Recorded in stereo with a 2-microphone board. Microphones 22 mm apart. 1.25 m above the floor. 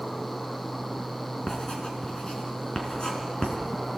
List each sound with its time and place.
1.5 s writing: 40° left (ahead or behind), 4 m